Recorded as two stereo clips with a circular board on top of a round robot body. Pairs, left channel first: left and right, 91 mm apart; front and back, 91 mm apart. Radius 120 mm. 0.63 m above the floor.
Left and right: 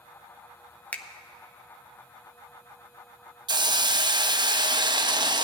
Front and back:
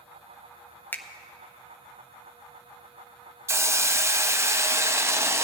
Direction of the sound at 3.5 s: 120° right.